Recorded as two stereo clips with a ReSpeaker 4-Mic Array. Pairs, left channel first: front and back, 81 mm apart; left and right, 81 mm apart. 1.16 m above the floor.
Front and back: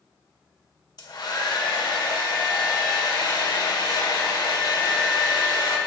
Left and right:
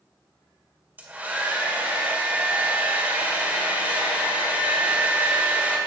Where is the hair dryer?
20° right, 1.7 m.